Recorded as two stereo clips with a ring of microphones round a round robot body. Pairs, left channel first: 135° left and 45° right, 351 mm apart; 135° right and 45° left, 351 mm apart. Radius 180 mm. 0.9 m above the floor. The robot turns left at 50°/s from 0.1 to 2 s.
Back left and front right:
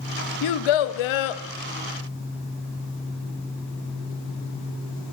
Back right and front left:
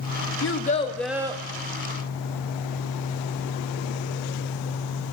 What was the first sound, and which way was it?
A child speaking, 170° left.